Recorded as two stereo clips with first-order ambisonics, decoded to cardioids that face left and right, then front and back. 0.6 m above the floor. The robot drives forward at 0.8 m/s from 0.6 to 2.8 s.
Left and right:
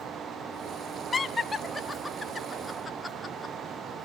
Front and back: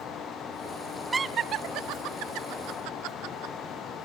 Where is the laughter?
120° left, 0.5 m; by 3.5 s 175° left, 1.5 m.